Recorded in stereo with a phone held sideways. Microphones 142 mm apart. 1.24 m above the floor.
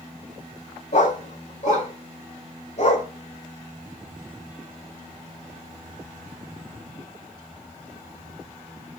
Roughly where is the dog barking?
Left.